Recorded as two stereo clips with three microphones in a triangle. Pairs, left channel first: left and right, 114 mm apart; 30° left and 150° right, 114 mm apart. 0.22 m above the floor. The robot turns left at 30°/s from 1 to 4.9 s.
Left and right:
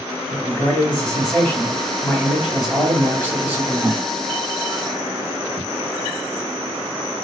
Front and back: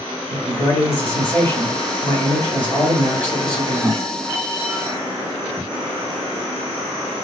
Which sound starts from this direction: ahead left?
A man speaking, at 0.3 s.